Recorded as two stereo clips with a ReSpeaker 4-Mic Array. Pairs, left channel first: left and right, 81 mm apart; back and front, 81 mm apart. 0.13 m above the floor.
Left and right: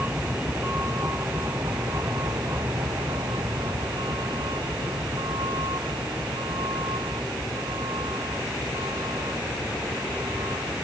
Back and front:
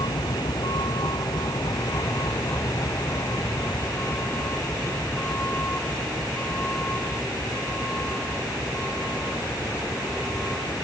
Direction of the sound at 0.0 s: 160° right.